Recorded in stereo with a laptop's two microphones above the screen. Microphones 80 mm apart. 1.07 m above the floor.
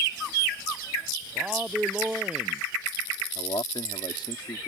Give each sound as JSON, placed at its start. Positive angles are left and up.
{"t": 1.4, "sound": "a man speaking", "side_deg": -15}
{"t": 3.4, "sound": "a man speaking", "side_deg": 75}